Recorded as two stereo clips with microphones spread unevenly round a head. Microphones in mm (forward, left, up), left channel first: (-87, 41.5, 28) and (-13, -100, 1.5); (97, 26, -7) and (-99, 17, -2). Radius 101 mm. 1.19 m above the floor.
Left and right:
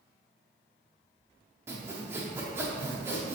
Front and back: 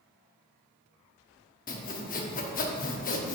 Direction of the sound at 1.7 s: 20° left.